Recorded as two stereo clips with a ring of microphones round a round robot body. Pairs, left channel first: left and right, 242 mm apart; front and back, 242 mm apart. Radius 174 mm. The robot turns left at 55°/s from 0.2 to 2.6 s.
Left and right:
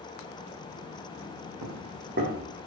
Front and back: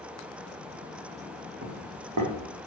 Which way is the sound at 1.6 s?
120° right.